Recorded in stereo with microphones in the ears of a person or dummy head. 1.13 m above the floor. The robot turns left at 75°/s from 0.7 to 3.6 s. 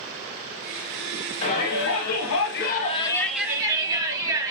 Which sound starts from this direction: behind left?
A shout, at 1.4 s.